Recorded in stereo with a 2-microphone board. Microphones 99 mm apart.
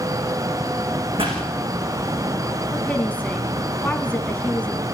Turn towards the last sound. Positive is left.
turn(degrees=15)  # may be behind; listen again after turning